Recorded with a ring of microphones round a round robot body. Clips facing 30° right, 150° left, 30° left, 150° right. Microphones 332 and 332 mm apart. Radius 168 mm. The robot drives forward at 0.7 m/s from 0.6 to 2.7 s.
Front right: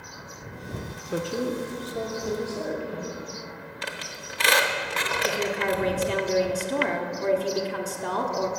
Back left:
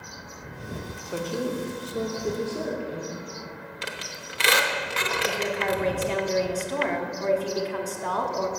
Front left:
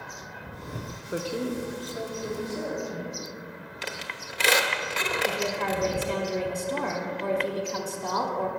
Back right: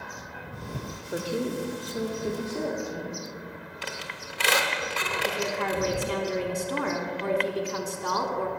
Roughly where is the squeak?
Left.